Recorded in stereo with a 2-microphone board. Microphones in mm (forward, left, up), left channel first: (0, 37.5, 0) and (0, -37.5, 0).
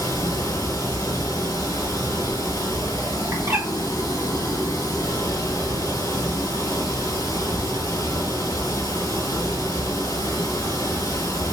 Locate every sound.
0.0 s running water: 55° left (ahead or behind), 1.7 m
3.3 s a bird: 40° right (ahead or behind), 1.1 m